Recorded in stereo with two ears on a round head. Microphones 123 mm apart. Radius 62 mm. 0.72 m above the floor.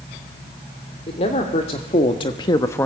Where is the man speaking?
45° left (ahead or behind), 3 m; by 2.9 s 10° left (ahead or behind), 1.0 m.